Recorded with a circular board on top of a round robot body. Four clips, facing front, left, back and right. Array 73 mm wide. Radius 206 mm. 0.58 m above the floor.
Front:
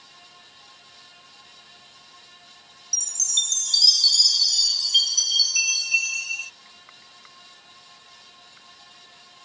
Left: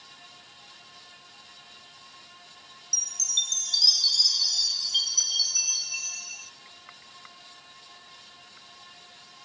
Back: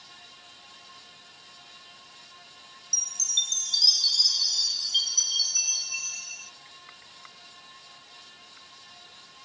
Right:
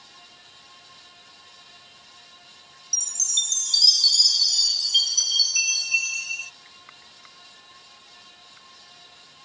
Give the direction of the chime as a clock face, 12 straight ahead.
1 o'clock.